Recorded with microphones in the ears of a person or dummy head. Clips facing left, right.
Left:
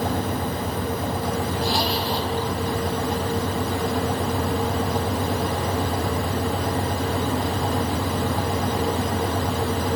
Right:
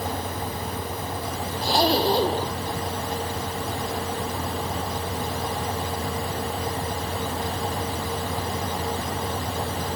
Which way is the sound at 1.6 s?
35° right (ahead or behind).